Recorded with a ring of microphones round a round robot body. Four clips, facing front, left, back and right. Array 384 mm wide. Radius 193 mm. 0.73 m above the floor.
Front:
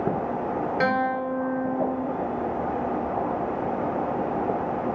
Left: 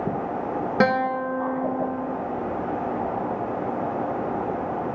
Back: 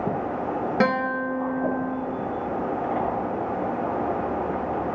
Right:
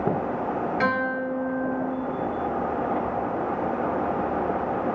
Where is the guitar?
115° left, 1.2 m.